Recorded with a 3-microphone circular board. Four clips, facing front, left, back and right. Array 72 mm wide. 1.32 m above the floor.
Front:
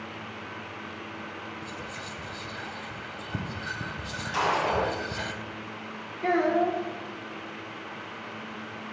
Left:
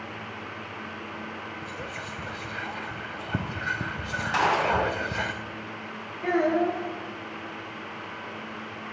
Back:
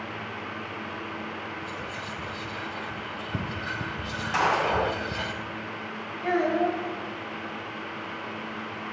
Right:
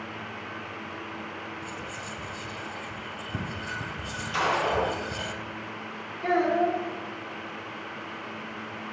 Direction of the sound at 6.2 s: 20° left.